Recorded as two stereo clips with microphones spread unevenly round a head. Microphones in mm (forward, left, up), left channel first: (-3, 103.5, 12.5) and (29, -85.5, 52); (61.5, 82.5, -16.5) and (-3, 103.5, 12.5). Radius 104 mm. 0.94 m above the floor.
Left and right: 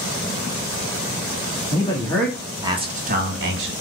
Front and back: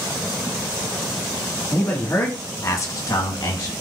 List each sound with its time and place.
1.7 s a man speaking: 45° left, 1.8 m; by 3.7 s 55° right, 1.8 m